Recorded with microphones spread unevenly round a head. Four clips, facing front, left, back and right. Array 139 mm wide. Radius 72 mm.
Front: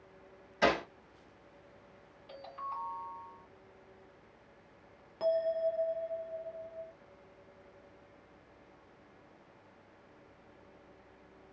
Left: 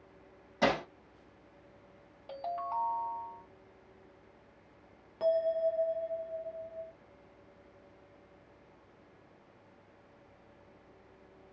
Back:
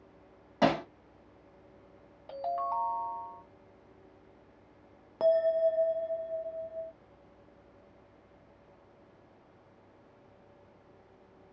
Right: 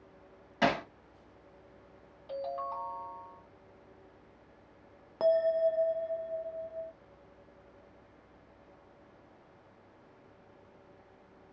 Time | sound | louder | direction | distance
0.6 | hammering | even, back 2 dB | 175° right | 1.3 m
2.3 | a ringtone | even, back 10 dB | 155° left | 2.0 m
5.2 | a bell | right 3 dB, back 5 dB | 130° right | 0.5 m